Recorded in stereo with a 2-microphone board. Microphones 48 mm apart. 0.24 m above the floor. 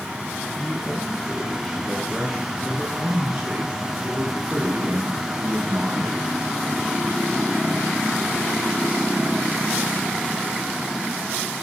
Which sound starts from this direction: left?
A man speaking, at 0.6 s.